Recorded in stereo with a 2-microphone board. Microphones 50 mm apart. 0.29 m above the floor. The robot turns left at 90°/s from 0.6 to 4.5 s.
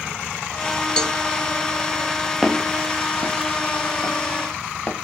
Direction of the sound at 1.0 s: 15° left (ahead or behind).